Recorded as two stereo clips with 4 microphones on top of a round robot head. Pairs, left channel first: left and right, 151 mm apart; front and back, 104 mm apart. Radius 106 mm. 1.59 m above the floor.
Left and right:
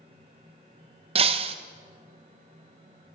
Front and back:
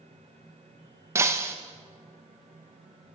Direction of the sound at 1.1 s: 120° right.